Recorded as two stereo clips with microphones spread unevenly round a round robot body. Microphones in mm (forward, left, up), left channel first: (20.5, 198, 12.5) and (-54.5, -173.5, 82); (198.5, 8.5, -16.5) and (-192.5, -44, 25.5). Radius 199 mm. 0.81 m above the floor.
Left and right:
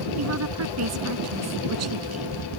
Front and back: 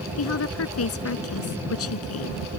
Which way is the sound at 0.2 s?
50° right.